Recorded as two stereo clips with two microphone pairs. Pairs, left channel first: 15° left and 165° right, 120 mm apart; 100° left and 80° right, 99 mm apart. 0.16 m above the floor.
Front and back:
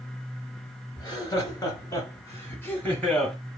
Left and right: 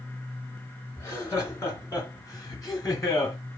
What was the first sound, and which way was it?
Laughter, 50° left.